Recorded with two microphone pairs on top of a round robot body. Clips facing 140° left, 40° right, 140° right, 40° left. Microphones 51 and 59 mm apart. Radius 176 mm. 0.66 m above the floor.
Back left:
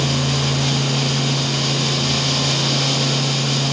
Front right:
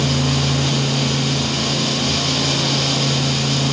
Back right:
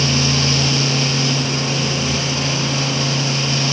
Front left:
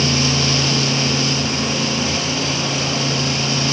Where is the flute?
No flute in this recording.